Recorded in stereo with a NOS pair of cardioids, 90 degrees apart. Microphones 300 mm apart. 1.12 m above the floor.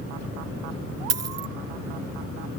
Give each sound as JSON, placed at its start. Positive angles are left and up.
{"t": 1.1, "sound": "a dropped coin", "azimuth_deg": -60}